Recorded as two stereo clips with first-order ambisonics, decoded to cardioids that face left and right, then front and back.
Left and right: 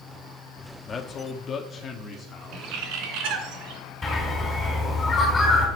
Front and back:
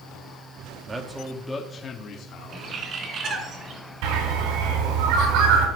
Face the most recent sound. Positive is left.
turn(degrees=170)